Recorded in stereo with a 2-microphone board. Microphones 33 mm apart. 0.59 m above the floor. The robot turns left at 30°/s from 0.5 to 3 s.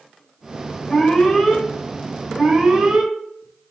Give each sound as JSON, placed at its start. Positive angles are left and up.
{"t": 0.9, "sound": "an alarm", "azimuth_deg": 25, "distance_m": 4.0}